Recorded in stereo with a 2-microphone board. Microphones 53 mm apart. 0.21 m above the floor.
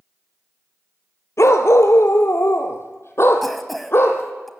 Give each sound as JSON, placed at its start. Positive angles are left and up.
{"t": 1.4, "sound": "a dog barking", "side_deg": 70, "distance_m": 1.8}
{"t": 3.4, "sound": "a cough", "side_deg": 0, "distance_m": 1.2}